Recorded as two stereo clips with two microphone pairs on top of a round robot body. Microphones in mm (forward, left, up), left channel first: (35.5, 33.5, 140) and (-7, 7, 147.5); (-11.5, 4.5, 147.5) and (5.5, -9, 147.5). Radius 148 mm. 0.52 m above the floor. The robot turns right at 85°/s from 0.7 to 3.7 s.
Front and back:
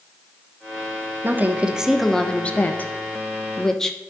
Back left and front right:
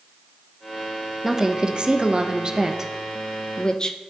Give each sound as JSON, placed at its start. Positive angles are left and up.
{"t": 1.2, "sound": "a woman speaking", "azimuth_deg": -110, "distance_m": 1.4}